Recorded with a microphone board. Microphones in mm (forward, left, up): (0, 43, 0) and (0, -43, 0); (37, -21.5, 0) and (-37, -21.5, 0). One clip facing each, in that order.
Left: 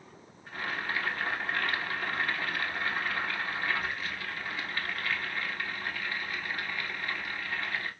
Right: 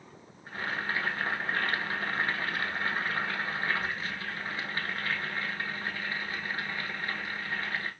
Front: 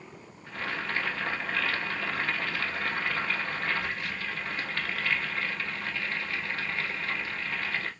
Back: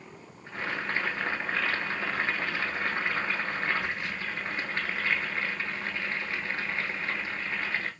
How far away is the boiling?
About 1.0 m.